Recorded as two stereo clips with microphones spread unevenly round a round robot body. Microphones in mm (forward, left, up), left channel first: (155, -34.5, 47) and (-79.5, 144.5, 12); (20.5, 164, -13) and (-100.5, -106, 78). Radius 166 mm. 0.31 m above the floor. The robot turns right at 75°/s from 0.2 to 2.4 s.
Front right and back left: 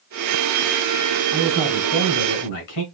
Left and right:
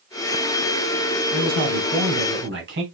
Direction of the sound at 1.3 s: 135° right.